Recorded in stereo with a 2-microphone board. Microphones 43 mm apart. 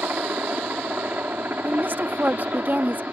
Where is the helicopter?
50° right (ahead or behind).